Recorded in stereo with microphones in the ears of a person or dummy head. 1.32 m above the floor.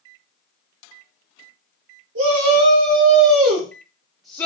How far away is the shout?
About 1.3 m.